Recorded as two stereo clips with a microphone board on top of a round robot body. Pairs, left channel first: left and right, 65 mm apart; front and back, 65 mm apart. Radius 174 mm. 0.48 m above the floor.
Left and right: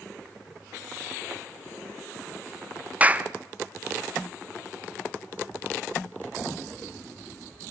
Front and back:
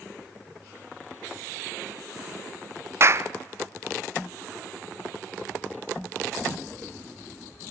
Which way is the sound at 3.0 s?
150° right.